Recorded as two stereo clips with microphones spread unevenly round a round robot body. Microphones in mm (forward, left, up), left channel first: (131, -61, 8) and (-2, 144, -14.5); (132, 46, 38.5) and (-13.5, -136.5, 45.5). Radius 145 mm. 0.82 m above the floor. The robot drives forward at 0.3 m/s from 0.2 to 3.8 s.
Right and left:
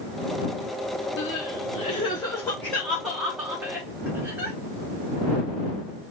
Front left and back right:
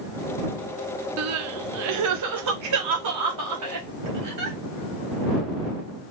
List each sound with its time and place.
1.2 s crying: 110° right, 0.5 m; by 4.6 s 155° right, 1.1 m